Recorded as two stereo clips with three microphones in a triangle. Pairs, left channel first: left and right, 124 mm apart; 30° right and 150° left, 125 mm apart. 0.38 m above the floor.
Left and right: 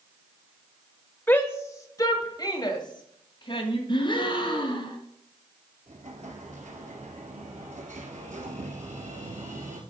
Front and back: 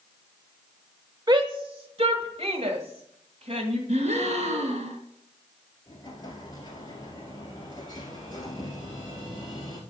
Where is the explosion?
85° right, 1.7 m.